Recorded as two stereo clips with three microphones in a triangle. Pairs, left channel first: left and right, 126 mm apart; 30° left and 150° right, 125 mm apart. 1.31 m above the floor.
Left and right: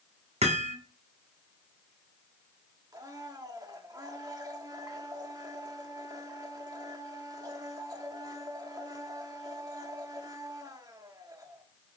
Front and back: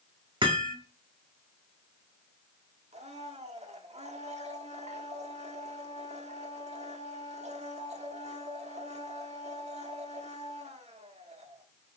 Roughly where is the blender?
Behind right.